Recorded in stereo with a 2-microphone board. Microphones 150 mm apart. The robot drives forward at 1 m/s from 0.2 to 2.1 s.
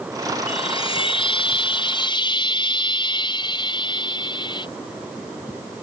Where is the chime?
35° left (ahead or behind); by 4.7 s 30° left (ahead or behind).